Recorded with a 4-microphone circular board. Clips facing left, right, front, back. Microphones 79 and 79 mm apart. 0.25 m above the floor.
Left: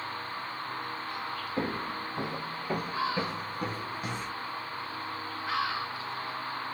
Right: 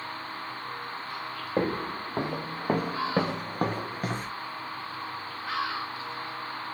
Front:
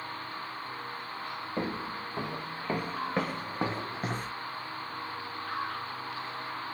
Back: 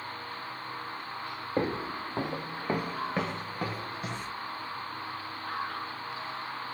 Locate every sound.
1.6 s footsteps: 125° right, 1.3 m; by 4.3 s 40° right, 0.8 m